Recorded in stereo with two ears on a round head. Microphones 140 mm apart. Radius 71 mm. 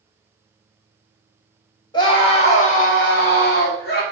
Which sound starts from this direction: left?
A scream, at 1.9 s.